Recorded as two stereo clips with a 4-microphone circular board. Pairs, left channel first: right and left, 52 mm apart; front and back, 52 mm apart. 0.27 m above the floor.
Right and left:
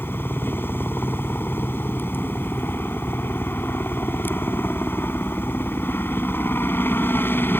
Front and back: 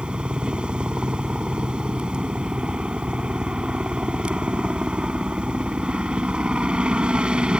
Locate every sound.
0.0 s a helicopter: 115° right